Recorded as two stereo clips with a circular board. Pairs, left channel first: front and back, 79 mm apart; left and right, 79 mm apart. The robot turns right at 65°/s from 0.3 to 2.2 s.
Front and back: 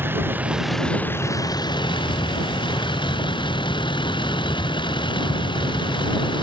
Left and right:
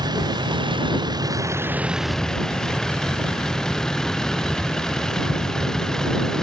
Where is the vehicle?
115° right; by 6.4 s 5° left.